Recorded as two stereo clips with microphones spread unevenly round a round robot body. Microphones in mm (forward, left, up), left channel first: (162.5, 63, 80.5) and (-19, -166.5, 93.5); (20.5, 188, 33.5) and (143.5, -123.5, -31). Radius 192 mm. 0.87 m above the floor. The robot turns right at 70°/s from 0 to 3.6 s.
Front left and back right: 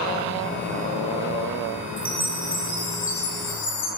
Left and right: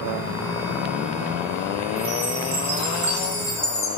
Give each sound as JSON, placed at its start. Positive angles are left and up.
{"t": 2.0, "sound": "a chime", "azimuth_deg": -75, "distance_m": 9.5}